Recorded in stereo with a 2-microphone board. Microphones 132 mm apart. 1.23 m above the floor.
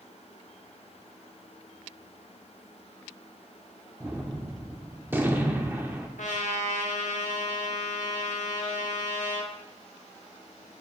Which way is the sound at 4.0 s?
15° right (ahead or behind).